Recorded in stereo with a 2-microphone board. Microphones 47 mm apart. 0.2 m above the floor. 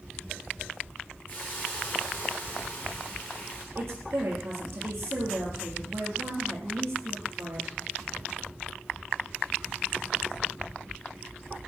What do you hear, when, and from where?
1.3 s a hiss: 40° left (ahead or behind), 6.5 m
3.8 s a woman speaking: 65° right (ahead or behind), 5.5 m